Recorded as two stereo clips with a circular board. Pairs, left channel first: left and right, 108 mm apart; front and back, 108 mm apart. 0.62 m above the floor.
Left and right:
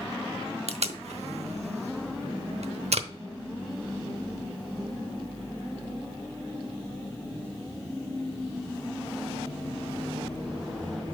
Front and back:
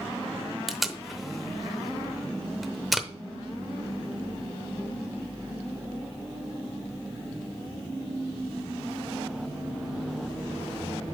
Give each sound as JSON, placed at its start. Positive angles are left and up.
{"t": 0.7, "sound": "tape being pulled", "azimuth_deg": -95, "distance_m": 0.8}